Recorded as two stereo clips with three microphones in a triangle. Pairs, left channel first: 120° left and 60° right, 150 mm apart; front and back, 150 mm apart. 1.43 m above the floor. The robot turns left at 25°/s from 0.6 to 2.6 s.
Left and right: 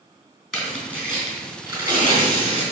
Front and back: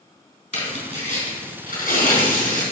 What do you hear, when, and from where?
0.5 s tearing paper: 30° left, 3.5 m; by 2.6 s 20° right, 3.5 m